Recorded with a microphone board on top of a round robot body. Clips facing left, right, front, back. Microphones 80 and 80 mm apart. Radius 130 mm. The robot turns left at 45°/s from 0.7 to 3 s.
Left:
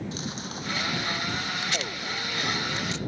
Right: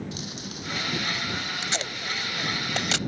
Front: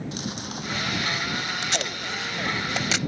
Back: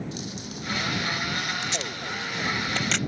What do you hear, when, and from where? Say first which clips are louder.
0.1 s chewing: left 2 dB, front 3 dB; 35° left; by 1.5 s straight ahead
1.6 s tape being pulled: even, front 2 dB; 25° right; by 3.0 s 85° right